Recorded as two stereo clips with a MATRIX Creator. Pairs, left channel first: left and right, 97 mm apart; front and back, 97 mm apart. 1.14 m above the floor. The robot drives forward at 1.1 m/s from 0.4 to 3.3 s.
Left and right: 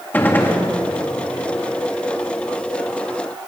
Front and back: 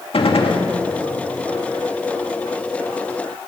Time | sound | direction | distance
0.1 | a gunshot | 20° left | 2.0 m